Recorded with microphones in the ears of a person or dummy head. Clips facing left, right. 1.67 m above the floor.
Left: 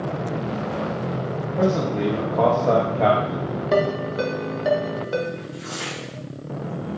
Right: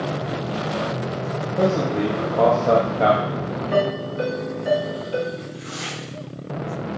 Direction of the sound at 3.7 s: 60° left (ahead or behind).